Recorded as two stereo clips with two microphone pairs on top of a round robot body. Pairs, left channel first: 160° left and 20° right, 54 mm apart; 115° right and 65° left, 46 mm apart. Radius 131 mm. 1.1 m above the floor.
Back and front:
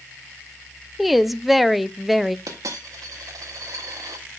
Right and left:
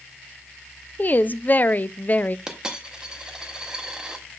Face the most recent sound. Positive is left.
turn(degrees=-10)